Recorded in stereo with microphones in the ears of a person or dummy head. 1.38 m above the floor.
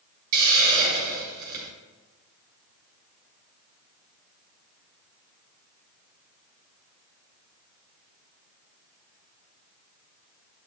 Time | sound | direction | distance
0.3 | a hiss | 45° right (ahead or behind) | 2.5 m